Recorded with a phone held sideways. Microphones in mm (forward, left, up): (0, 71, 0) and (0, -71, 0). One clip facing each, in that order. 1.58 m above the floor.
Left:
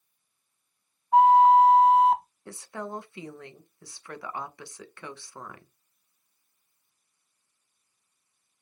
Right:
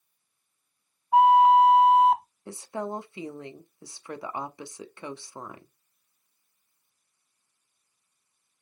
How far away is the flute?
About 0.6 m.